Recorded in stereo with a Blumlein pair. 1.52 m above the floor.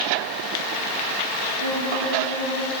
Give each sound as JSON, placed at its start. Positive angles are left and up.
{"t": 1.6, "sound": "a violin", "azimuth_deg": -65, "distance_m": 10.0}